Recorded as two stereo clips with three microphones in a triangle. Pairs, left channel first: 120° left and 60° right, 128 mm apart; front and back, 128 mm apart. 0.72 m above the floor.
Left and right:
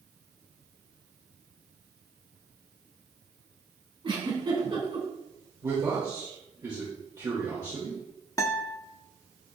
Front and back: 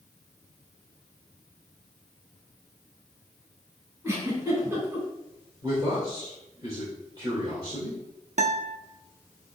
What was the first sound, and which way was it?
A giggle, 110° right.